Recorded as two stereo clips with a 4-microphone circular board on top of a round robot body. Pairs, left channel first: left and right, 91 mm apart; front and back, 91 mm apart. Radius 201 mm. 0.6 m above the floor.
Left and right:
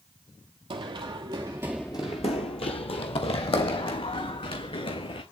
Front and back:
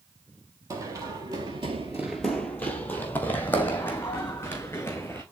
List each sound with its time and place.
0.7 s running footsteps: 125° right, 1.2 m; by 5.2 s 65° left, 3 m